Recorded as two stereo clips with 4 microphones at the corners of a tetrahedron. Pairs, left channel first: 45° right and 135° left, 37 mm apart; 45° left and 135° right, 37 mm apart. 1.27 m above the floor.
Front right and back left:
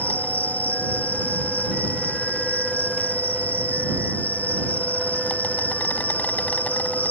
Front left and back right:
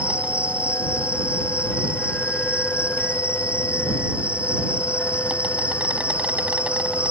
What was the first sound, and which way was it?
An insect, 85° right.